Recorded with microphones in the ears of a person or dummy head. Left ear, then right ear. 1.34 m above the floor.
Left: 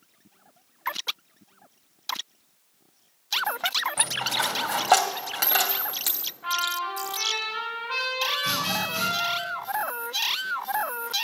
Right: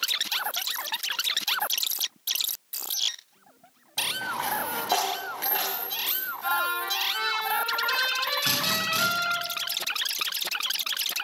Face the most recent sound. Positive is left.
turn(degrees=-40)  # may be behind; listen again after turning